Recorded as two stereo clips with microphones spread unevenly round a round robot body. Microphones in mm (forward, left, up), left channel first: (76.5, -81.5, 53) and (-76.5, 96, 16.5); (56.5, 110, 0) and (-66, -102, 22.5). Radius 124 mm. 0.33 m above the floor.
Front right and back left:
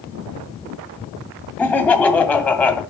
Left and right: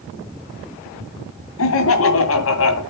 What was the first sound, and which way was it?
Laughter, 40° left.